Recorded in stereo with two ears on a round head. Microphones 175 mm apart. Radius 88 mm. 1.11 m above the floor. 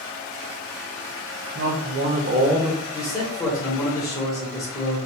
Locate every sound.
1.6 s a man speaking: 55° right (ahead or behind), 1.1 m; by 2.8 s 10° right (ahead or behind), 0.6 m
2.9 s a man speaking: 20° left (ahead or behind), 1.2 m